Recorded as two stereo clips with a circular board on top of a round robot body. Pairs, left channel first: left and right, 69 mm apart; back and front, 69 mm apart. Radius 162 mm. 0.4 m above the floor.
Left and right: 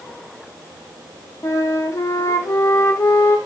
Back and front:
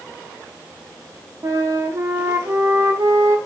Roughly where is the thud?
I don't hear a thud.